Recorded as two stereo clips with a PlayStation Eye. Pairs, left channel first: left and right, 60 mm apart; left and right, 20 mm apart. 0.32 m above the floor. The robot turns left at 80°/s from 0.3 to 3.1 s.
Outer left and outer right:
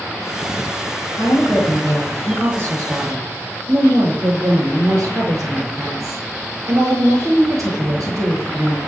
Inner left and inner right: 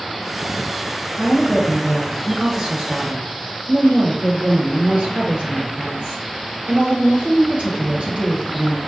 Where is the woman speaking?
70° left, 7 m; by 8.8 s 85° right, 7 m.